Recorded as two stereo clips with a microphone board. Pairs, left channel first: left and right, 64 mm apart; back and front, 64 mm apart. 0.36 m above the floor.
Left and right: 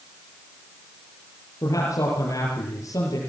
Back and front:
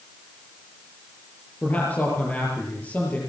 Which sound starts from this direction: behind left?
A man speaking, at 1.6 s.